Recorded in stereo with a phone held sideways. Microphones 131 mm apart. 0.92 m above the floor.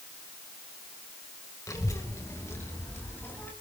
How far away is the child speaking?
About 3 m.